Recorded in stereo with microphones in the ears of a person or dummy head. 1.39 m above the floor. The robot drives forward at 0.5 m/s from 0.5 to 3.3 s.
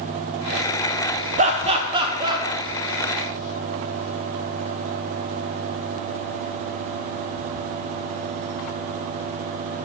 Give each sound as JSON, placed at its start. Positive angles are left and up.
{"t": 1.4, "sound": "laughter", "side_deg": -40, "distance_m": 0.5}